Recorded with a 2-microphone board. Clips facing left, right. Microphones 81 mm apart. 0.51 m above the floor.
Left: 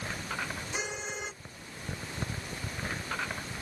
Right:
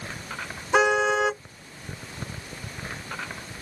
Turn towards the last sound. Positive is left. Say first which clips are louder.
# right 21 dB
turn(degrees=-85)